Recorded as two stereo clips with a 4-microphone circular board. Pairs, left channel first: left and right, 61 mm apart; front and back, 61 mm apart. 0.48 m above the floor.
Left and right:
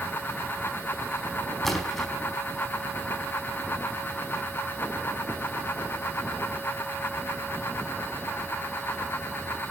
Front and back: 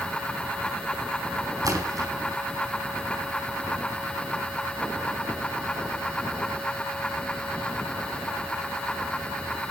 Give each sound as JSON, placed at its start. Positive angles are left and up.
{"t": 1.6, "sound": "a splash", "azimuth_deg": 175, "distance_m": 4.5}